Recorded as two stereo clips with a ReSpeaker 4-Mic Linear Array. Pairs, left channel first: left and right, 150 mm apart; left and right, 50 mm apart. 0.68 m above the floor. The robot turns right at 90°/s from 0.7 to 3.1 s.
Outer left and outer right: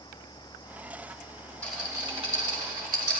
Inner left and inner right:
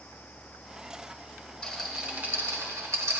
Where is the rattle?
10° left (ahead or behind), 1.5 m; by 3.2 s 55° right (ahead or behind), 1.5 m.